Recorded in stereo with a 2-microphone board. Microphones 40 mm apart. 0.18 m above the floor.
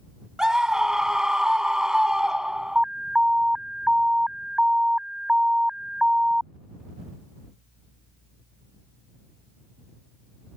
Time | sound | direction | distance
0.4 | a scream | 15° right (ahead or behind) | ?
2.8 | an alarm | 15° right (ahead or behind) | ?